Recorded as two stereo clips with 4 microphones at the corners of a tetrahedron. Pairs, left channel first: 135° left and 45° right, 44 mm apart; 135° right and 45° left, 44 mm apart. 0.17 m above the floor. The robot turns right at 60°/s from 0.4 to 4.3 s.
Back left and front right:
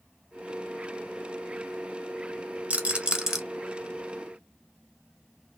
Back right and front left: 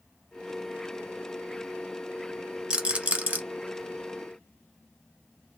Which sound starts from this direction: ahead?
A rattle, at 2.7 s.